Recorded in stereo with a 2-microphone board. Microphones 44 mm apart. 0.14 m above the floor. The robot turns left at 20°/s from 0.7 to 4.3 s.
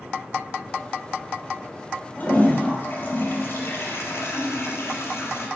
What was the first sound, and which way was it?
A toilet flushing, 140° left.